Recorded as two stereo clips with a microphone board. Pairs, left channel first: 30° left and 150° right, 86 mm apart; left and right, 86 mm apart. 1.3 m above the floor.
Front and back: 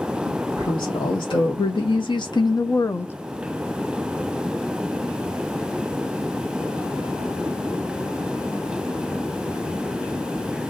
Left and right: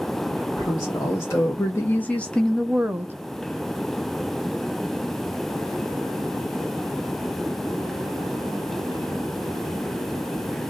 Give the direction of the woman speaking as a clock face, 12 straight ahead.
11 o'clock.